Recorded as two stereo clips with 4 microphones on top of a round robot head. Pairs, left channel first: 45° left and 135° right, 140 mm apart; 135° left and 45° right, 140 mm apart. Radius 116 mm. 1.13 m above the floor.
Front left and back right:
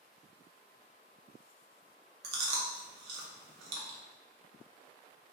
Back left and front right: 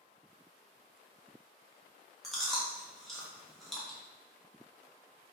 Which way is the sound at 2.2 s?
135° right.